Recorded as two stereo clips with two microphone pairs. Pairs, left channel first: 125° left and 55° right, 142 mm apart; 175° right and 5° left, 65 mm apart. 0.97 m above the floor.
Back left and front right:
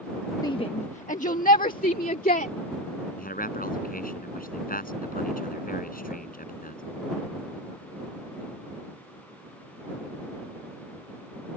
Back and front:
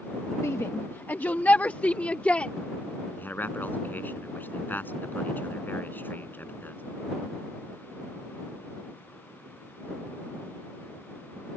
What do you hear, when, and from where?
0.4 s a shout: 175° left; by 2.5 s 115° left
3.2 s a man speaking: 125° left